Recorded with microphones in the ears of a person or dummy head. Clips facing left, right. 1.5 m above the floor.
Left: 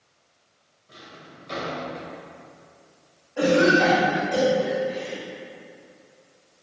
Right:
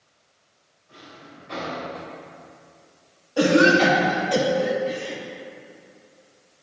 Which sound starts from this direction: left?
A drawer, at 0.9 s.